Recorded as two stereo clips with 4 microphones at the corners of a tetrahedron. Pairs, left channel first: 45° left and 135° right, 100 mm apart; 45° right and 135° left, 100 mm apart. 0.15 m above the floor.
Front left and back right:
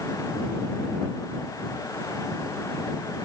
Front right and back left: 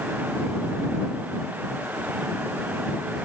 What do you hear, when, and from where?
Only background noise.